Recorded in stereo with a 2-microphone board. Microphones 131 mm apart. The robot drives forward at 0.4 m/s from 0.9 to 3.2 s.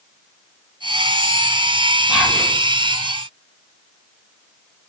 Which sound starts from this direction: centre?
Whispering, at 2.1 s.